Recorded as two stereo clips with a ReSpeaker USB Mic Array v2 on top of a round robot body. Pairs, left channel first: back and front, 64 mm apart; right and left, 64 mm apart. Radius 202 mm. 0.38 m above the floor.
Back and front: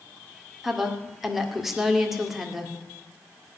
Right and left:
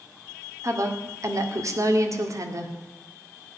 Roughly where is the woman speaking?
Left.